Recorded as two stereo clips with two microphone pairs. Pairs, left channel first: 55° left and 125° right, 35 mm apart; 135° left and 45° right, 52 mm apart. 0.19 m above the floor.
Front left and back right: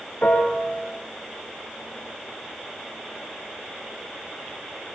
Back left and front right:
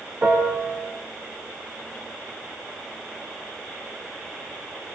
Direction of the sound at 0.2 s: 15° left.